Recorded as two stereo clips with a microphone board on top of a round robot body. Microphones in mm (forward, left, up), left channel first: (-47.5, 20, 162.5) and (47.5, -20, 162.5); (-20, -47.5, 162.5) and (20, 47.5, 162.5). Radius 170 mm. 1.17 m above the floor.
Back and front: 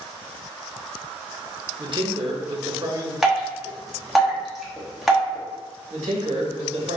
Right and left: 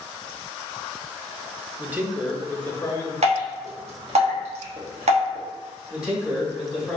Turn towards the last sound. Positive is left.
turn(degrees=-15)